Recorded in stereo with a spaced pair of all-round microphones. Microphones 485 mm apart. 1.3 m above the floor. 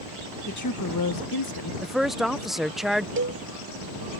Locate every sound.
0.5 s a woman speaking: 35° left (ahead or behind); by 1.7 s 50° left (ahead or behind)
1.8 s a woman speaking: centre (ahead or behind)
3.2 s a cowbell: 25° right (ahead or behind)